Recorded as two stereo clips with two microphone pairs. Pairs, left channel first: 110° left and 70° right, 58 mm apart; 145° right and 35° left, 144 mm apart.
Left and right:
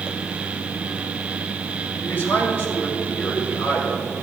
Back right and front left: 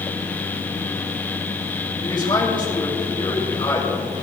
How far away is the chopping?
No chopping in this recording.